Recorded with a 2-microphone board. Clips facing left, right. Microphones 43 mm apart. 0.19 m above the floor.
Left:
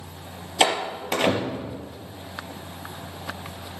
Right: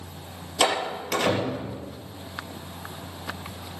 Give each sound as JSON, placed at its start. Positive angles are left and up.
{"t": 0.6, "sound": "a door slam", "side_deg": 30, "distance_m": 3.5}